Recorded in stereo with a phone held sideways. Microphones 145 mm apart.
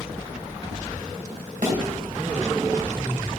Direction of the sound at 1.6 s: 60° right (ahead or behind).